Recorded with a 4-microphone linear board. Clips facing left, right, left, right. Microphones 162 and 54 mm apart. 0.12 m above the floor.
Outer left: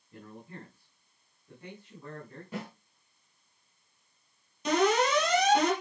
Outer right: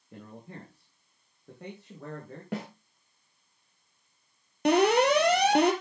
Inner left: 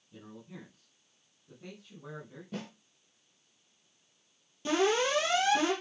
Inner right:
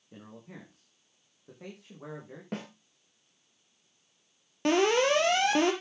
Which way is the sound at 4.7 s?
65° right (ahead or behind).